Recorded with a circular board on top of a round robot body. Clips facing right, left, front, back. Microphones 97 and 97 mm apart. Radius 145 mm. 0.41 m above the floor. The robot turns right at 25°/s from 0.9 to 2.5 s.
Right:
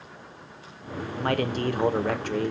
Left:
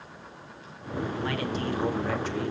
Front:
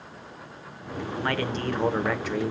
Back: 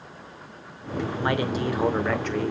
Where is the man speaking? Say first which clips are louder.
Right 8 dB, back 2 dB; 115° right, 2 m; by 2.5 s 80° right, 2 m.